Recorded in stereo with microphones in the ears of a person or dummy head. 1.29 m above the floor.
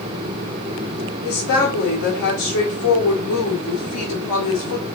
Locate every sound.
1.2 s a woman speaking: 75° left (ahead or behind), 1.6 m